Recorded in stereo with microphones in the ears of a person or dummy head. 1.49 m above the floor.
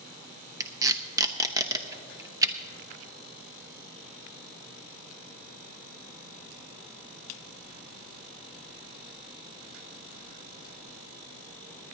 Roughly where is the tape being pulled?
Centre.